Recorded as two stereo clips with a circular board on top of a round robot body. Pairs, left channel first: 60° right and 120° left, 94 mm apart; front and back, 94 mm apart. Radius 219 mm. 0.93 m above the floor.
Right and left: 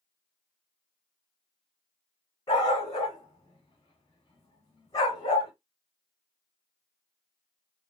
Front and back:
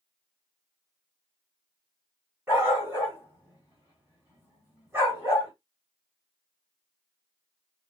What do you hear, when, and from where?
2.5 s a dog barking: 110° right, 3.5 m